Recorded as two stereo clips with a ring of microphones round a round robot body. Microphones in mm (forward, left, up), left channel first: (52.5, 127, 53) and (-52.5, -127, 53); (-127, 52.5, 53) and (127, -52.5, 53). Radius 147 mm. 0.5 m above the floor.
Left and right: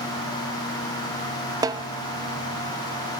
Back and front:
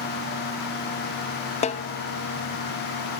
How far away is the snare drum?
About 0.6 m.